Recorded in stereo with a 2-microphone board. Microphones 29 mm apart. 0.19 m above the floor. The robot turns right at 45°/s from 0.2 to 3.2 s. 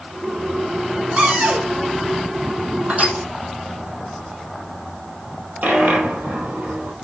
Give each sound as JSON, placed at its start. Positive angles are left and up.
{"t": 1.2, "sound": "a cupboard door", "side_deg": -40, "distance_m": 2.0}
{"t": 2.9, "sound": "crushing", "side_deg": -55, "distance_m": 1.9}
{"t": 5.6, "sound": "a dropped coin", "side_deg": -80, "distance_m": 2.5}